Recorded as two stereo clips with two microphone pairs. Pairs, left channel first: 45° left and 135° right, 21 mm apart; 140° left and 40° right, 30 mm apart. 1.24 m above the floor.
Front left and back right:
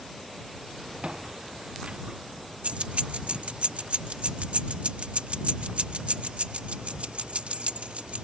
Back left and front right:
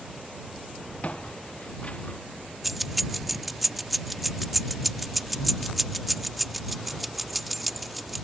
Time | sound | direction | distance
1.0 | footsteps | straight behind | ?
2.6 | keys jangling | 130° right | ?